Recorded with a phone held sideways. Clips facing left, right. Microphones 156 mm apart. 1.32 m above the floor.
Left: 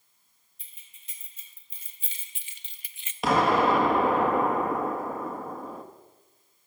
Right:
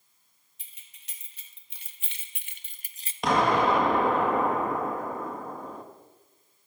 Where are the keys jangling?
80° right, 2 m; by 3.1 s 30° right (ahead or behind), 0.6 m.